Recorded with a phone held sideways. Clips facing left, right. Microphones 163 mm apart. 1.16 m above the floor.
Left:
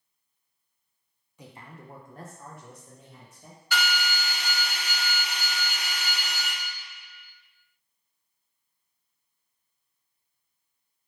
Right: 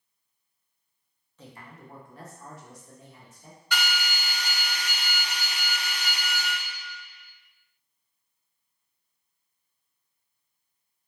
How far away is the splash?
I don't hear a splash.